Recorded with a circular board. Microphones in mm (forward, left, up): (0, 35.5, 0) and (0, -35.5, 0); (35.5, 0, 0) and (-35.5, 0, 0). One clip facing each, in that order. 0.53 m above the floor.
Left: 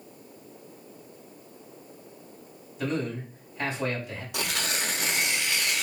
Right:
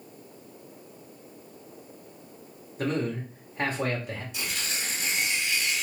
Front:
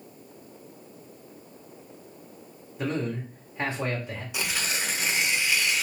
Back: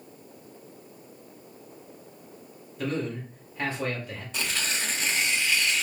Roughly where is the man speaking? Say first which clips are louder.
Right 1 dB, front 1 dB; ahead right.